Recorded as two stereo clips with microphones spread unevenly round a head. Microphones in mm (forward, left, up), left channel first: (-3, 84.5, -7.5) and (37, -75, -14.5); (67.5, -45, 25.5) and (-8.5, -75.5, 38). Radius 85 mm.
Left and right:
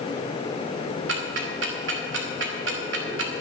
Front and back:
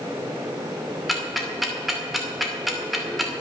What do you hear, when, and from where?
1.1 s ticking: 70° right, 2.5 m